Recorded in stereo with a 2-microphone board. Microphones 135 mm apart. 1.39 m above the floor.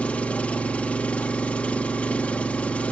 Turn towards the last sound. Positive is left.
turn(degrees=10)  # may be behind; listen again after turning